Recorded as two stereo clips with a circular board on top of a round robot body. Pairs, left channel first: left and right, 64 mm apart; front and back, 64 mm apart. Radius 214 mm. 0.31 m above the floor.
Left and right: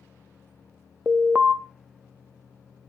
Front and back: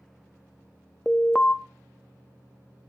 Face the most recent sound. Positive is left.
turn(degrees=-70)